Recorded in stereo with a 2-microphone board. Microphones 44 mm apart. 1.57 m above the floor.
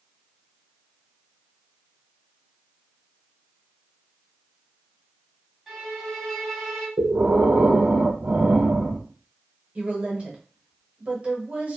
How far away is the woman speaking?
About 1.0 m.